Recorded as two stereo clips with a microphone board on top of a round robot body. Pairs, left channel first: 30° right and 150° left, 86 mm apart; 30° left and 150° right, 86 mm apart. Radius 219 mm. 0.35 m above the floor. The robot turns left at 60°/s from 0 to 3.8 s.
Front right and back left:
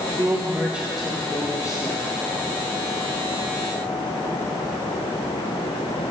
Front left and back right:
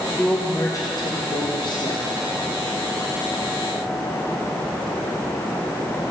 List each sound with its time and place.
0.2 s a woman speaking: 110° left, 1.4 m; by 2.1 s 10° right, 1.4 m